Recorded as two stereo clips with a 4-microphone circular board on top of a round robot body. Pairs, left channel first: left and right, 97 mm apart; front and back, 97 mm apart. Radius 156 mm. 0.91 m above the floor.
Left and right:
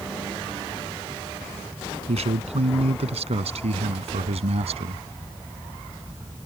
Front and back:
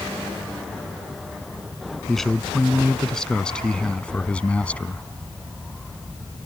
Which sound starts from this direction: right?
A man speaking, at 2.1 s.